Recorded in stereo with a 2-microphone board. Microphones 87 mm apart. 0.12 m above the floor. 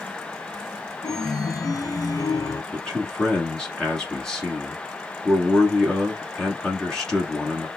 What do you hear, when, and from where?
1.0 s a chime: 50° left (ahead or behind), 0.5 m
2.7 s a man speaking: 5° left (ahead or behind), 1.2 m